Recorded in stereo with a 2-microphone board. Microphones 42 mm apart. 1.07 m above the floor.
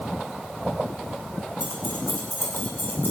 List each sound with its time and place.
1.6 s keys jangling: 50° left (ahead or behind), 4.5 m; by 3.1 s 60° left (ahead or behind), 6 m